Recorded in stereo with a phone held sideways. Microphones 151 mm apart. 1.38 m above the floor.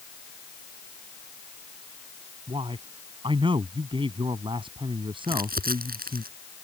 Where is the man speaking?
35° right (ahead or behind).